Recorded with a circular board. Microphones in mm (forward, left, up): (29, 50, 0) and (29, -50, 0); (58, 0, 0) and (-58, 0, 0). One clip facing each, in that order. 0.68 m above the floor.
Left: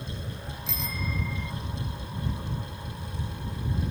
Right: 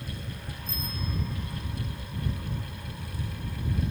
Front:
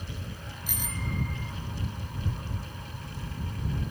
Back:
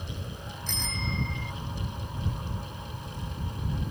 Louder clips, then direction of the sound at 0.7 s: Left 2 dB, back 1 dB; 80° left.